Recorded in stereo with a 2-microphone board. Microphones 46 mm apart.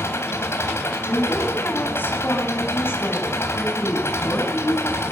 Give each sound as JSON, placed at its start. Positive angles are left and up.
{"t": 0.0, "sound": "an engine running", "side_deg": 70, "distance_m": 3.5}
{"t": 1.0, "sound": "a woman speaking", "side_deg": 50, "distance_m": 7.0}